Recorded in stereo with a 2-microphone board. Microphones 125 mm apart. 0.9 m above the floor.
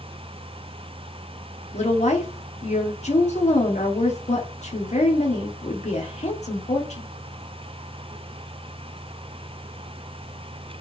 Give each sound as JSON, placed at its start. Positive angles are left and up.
{"t": 1.7, "sound": "a woman speaking", "side_deg": 65, "distance_m": 2.5}